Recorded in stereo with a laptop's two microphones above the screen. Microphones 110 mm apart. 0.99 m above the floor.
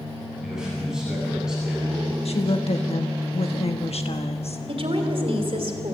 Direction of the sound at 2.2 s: 70° left (ahead or behind).